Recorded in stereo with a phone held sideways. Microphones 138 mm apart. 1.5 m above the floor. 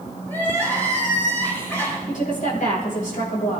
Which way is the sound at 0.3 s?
15° left (ahead or behind).